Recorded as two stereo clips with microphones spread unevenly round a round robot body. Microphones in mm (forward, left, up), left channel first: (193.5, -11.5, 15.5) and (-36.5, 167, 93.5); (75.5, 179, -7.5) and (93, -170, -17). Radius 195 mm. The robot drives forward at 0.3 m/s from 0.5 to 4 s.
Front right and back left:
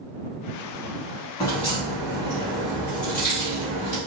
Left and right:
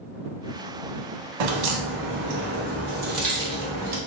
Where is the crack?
120° right, 0.5 m; by 4.0 s 155° right, 1.1 m.